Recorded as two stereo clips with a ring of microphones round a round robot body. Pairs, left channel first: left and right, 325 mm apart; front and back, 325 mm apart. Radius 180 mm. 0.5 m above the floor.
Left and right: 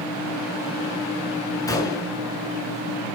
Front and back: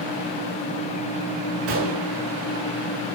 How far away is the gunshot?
About 6 m.